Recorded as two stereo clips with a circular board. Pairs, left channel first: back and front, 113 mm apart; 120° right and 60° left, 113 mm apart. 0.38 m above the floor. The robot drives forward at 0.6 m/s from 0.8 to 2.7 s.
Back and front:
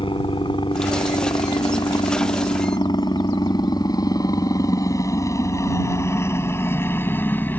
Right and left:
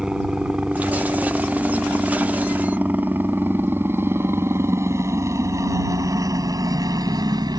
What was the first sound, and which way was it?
A helicopter, 145° left.